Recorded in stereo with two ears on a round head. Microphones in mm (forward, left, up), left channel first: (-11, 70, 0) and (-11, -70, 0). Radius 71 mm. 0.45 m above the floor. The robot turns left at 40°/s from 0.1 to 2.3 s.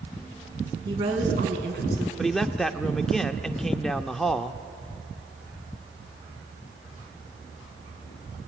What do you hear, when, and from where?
0.8 s a woman speaking: 30° right, 5 m; by 2.1 s 80° right, 5 m
2.2 s a man speaking: centre (ahead or behind), 0.8 m; by 4.6 s 5° left (ahead or behind), 0.8 m